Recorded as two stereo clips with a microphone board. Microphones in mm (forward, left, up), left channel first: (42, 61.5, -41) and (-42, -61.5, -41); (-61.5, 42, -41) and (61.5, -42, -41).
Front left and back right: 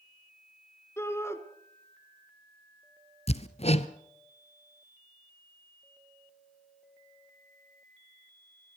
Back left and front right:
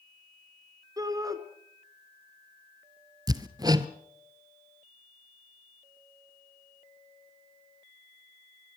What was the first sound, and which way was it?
A shout, straight ahead.